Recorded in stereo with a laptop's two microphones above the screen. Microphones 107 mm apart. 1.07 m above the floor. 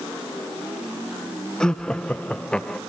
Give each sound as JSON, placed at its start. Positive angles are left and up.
{"t": 1.6, "sound": "laughter", "side_deg": 5, "distance_m": 0.7}